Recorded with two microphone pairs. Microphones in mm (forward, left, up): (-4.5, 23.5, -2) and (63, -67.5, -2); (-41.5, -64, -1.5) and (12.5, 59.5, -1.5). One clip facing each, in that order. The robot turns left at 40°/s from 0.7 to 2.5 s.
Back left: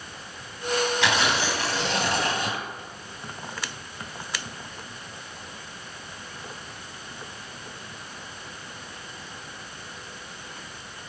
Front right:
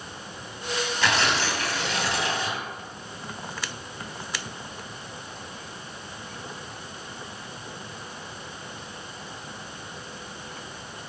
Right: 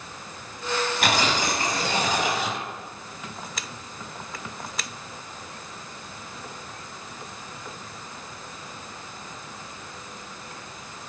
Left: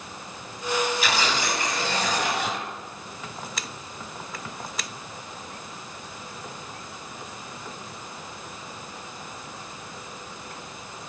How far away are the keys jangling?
No keys jangling in this recording.